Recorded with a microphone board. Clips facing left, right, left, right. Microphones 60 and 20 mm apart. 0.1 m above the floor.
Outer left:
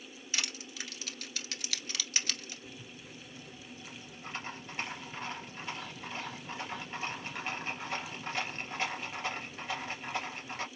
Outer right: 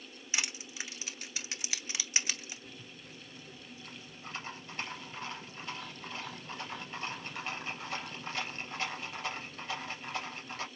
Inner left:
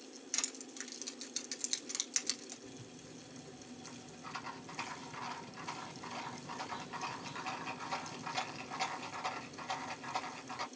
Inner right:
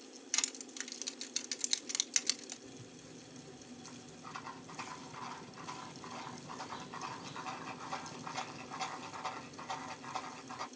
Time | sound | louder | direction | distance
0.3 | crushing | outer right 1 dB, inner right 3 dB | 15° right (ahead or behind) | 1.0 m
2.7 | a rattle | outer left 2 dB, inner left 1 dB | 25° left (ahead or behind) | 2 m